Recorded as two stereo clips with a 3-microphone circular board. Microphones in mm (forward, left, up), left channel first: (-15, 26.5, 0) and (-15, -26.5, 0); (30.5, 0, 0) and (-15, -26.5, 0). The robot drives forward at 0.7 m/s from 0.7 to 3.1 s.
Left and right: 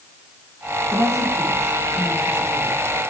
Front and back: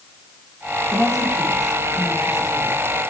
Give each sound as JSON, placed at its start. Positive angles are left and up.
{"t": 0.9, "sound": "a woman speaking", "azimuth_deg": -60, "distance_m": 9.5}